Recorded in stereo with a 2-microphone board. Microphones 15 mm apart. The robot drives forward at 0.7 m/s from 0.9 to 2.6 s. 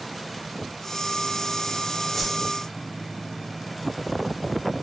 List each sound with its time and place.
2.1 s a whoosh: 10° left (ahead or behind), 0.7 m